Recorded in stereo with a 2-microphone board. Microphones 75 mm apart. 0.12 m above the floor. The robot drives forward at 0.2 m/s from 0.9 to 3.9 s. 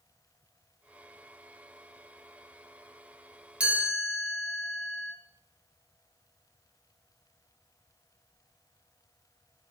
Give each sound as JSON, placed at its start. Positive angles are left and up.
{"t": 3.6, "sound": "a chime", "side_deg": -20, "distance_m": 0.6}